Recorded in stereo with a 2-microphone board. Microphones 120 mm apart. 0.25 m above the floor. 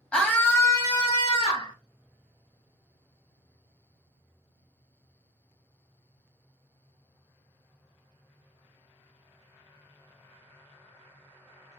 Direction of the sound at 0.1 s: 10° left (ahead or behind).